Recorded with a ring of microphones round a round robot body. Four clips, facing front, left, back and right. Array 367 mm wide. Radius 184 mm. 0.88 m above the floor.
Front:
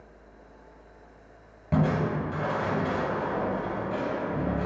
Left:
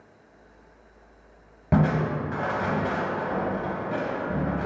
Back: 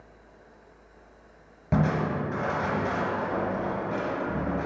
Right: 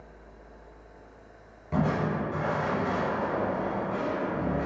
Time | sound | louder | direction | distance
1.7 | crushing | left 4 dB, even | 105° left | 1.0 m